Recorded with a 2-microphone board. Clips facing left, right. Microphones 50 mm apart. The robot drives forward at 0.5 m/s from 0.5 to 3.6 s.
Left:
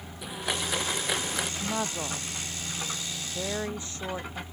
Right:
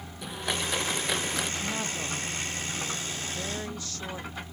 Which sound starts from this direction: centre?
A blender, at 0.2 s.